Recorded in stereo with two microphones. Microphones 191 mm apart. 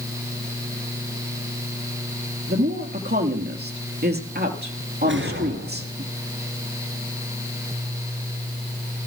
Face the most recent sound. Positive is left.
turn(degrees=-85)